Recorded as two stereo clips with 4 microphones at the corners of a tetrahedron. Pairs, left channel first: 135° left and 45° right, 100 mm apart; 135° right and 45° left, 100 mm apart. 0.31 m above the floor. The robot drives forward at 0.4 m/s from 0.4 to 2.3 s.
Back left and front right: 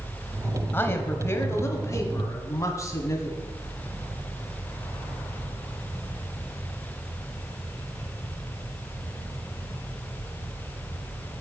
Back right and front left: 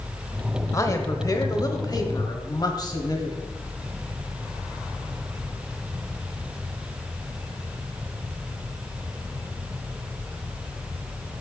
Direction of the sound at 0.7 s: 170° right.